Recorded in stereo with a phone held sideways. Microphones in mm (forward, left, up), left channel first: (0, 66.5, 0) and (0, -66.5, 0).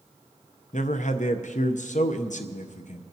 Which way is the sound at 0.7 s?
65° left (ahead or behind).